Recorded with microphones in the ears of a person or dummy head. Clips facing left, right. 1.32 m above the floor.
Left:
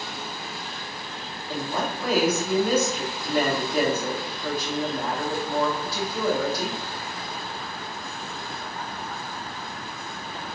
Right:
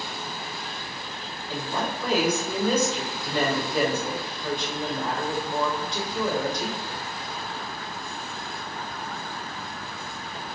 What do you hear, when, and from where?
1.5 s a woman speaking: 5° left (ahead or behind), 2.5 m